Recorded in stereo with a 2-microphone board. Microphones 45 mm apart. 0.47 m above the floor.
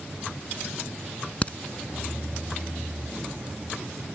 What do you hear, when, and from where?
1.4 s a crack: 30° left (ahead or behind)